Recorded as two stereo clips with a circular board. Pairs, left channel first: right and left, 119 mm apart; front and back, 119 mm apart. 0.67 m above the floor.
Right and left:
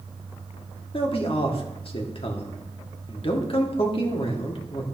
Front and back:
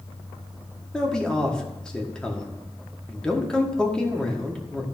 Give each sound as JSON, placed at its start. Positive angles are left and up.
{"t": 0.9, "sound": "a man speaking", "azimuth_deg": -80, "distance_m": 1.3}